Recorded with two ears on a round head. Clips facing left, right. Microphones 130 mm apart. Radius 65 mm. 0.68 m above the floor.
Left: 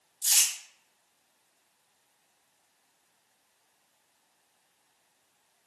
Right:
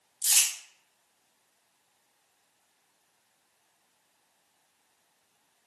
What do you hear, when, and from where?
0.2 s crumpling: 35° right (ahead or behind), 1.7 m